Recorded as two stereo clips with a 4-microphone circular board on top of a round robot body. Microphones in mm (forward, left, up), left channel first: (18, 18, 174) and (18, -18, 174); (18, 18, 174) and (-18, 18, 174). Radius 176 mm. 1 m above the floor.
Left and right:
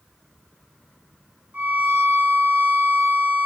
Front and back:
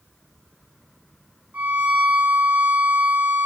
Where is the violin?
145° right, 6 m.